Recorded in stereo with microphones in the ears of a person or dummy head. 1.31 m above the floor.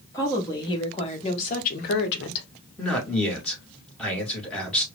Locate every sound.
0.1 s a woman speaking: 20° left (ahead or behind), 1.9 m; by 2.5 s 80° left, 1.0 m
2.8 s a man speaking: 5° left (ahead or behind), 1.9 m